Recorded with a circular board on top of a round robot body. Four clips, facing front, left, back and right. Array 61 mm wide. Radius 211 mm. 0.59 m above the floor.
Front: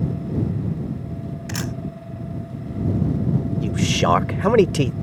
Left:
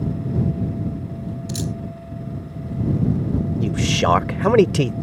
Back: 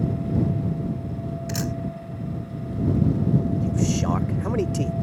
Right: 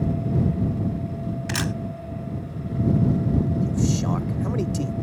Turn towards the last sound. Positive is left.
turn(degrees=50)